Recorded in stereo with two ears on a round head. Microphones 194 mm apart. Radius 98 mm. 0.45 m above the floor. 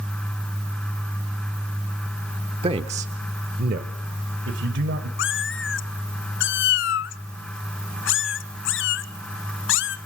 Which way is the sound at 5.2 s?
60° left (ahead or behind).